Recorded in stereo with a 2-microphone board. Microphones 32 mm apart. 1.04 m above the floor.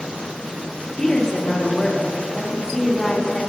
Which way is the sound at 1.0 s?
25° left (ahead or behind).